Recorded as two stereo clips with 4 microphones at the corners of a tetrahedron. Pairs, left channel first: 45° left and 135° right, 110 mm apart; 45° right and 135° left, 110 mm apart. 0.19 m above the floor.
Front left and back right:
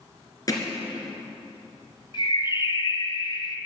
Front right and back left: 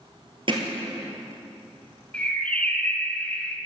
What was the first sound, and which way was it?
Hammering, 100° left.